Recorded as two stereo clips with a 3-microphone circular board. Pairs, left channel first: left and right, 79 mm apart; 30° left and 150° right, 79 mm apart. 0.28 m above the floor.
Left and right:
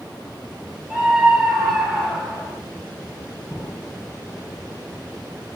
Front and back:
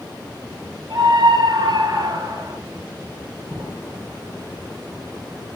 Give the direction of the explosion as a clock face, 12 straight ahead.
7 o'clock.